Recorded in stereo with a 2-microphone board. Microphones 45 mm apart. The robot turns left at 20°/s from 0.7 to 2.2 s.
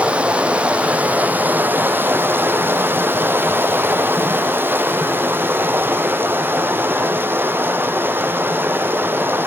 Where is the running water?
30° right, 3 m; by 9.5 s 60° right, 3 m.